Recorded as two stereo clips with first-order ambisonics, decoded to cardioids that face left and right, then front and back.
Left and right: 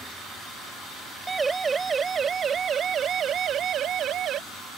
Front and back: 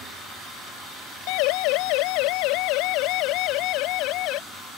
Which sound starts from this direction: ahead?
A siren, at 1.3 s.